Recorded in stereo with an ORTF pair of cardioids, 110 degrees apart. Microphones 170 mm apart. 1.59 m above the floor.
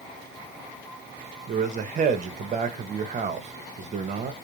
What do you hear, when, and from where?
1.5 s a man speaking: 45° right, 0.7 m